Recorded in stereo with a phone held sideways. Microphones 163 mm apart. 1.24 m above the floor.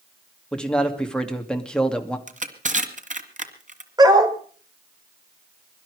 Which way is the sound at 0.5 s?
5° left (ahead or behind).